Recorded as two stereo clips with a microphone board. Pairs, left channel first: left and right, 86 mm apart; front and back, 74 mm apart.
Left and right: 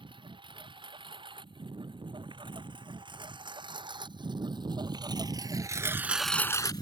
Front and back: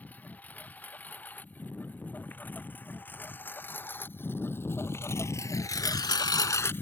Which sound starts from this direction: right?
A lawn mower, at 0.0 s.